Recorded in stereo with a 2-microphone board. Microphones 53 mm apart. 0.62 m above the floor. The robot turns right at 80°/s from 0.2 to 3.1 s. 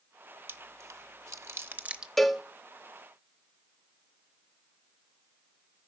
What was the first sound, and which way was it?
Chewing, 40° right (ahead or behind).